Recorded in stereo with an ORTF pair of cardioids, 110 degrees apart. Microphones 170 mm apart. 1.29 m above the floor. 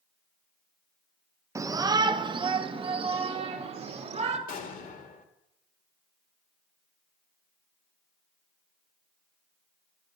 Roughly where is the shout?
Ahead.